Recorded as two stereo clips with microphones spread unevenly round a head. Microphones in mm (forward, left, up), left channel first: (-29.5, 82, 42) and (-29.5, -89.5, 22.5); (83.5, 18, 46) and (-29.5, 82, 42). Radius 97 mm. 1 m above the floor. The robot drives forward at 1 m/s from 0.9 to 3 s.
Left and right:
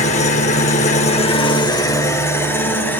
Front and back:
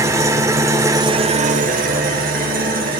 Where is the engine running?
90° left, 0.8 m; by 3.0 s 165° left, 2.5 m.